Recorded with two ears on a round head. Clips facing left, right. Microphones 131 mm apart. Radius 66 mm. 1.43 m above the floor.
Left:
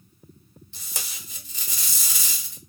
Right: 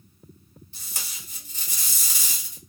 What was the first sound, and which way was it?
Tape being pulled, 65° left (ahead or behind).